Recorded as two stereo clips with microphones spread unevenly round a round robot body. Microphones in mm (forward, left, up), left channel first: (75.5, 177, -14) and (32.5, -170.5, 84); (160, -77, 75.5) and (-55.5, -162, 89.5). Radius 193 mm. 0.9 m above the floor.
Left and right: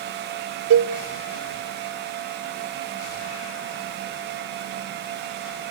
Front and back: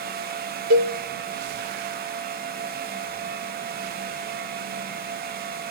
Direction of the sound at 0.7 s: 155° right.